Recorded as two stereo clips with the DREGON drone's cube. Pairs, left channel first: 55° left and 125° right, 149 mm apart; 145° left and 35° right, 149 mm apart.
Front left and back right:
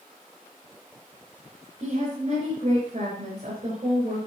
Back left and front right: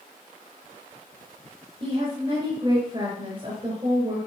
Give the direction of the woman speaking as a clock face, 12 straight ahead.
3 o'clock.